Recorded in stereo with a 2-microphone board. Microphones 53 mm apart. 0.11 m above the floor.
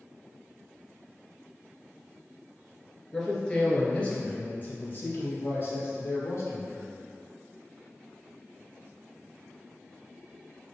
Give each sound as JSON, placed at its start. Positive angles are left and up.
{"t": 3.1, "sound": "a man speaking", "side_deg": 10, "distance_m": 1.9}